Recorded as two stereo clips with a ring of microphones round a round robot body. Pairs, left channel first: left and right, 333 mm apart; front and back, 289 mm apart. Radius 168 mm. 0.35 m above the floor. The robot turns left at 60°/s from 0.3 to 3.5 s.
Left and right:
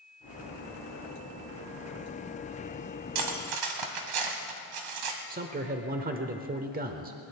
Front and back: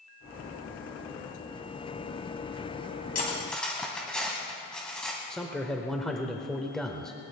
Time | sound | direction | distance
3.1 | cutlery clinking | 65° right | 1.8 m
5.3 | a man speaking | 85° right | 0.9 m